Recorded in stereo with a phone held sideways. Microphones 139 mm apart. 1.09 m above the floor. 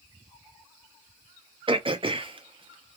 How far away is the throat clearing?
About 0.6 m.